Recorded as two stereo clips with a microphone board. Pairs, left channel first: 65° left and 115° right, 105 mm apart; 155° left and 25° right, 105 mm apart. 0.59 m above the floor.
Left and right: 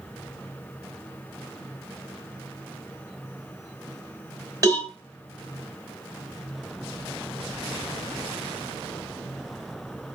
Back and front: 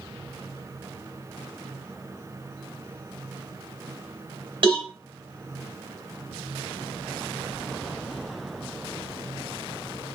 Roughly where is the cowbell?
Ahead right.